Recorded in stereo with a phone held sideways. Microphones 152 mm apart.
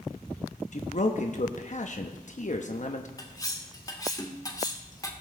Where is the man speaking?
55° left (ahead or behind), 0.9 m.